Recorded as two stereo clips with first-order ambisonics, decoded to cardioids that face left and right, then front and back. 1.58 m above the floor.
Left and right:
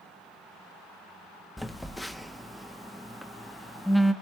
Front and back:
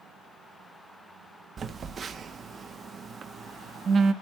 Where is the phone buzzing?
Straight behind, 0.7 m.